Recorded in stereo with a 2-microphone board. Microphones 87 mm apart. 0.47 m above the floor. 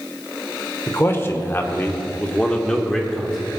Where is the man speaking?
30° left (ahead or behind), 1.5 m; by 3.6 s 5° right (ahead or behind), 1.5 m.